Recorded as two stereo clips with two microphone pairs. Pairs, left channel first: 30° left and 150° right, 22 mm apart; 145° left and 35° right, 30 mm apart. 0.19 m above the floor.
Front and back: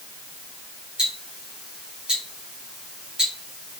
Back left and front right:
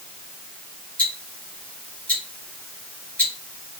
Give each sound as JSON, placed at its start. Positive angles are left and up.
{"t": 1.0, "sound": "ticking", "azimuth_deg": 170, "distance_m": 2.5}